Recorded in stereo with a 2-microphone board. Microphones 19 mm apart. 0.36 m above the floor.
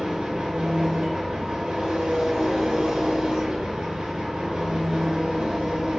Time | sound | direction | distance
0.0 | an engine running | 65° right (ahead or behind) | 0.8 m